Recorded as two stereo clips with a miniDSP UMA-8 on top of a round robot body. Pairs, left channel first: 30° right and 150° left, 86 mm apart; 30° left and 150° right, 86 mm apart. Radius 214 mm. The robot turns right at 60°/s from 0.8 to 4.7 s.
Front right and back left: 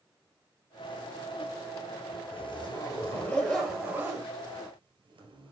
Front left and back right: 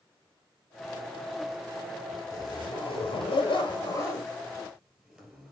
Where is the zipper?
25° right, 3 m; by 5.5 s 120° left, 3 m.